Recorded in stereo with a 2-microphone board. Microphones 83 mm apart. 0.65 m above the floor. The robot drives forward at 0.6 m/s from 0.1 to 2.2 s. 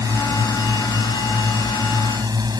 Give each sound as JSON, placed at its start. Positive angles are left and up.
{"t": 0.0, "sound": "a drone", "side_deg": -50}